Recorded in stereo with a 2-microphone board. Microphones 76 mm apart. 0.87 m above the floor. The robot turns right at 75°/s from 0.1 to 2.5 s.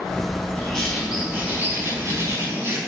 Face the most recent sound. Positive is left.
turn(degrees=-65)